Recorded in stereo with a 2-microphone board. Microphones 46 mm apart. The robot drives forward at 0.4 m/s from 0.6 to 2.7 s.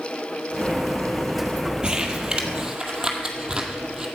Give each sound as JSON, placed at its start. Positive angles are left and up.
{"t": 1.8, "sound": "crumpling", "side_deg": -20, "distance_m": 1.3}